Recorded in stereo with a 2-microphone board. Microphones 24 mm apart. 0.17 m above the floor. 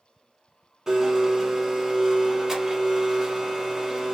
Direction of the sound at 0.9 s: 20° right (ahead or behind).